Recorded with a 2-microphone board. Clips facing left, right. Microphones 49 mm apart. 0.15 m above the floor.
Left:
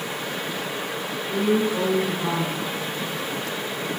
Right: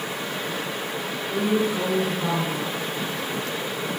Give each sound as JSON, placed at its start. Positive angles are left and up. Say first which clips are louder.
{"t": 1.3, "sound": "a woman speaking", "louder": "left 1 dB", "side_deg": 25, "distance_m": 1.8}